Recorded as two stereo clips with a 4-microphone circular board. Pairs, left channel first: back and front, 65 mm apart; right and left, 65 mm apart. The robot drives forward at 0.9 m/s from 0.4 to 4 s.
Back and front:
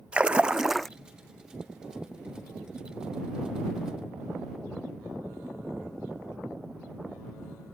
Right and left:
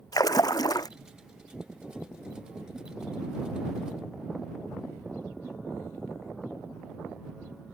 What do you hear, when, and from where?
0.1 s a splash: 70° right; by 0.9 s 95° right